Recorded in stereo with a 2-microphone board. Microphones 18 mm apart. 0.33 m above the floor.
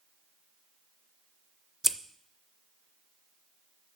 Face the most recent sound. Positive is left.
turn(degrees=-15)  # may be behind; listen again after turning